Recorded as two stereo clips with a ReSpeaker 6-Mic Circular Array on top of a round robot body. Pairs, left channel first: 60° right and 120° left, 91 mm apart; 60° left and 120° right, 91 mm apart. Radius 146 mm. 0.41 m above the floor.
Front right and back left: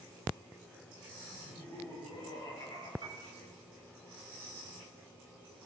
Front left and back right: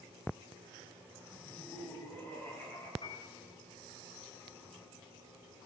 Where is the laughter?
10° right, 5.5 m.